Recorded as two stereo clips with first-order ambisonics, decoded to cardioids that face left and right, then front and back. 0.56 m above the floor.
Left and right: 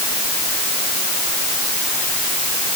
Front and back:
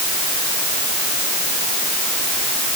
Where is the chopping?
No chopping in this recording.